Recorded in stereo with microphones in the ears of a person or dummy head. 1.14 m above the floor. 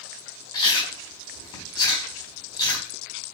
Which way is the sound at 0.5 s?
25° left (ahead or behind).